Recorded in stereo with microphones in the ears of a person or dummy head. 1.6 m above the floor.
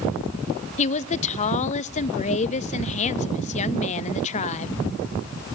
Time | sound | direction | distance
0.8 | a woman speaking | 35° left (ahead or behind) | 0.6 m